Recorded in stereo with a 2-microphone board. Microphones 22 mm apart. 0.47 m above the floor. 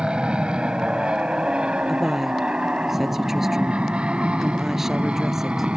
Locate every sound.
0.0 s an aircraft: 50° right (ahead or behind); by 5.8 s 60° right (ahead or behind)
1.9 s a woman speaking: 10° right (ahead or behind)